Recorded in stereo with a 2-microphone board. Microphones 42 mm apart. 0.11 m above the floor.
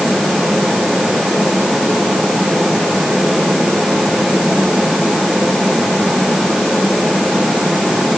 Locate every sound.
Only background noise.